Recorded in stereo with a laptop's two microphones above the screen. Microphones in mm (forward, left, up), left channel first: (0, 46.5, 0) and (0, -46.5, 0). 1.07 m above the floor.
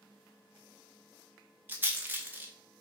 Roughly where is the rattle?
Right.